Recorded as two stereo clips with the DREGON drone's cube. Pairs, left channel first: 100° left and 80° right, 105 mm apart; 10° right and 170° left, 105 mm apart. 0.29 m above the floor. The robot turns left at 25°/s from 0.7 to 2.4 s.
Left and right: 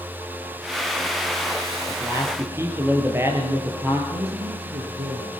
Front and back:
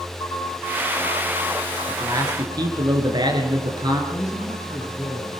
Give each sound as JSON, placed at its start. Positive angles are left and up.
{"t": 1.9, "sound": "a man speaking", "azimuth_deg": -130, "distance_m": 5.0}
{"t": 4.1, "sound": "a man speaking", "azimuth_deg": -65, "distance_m": 4.5}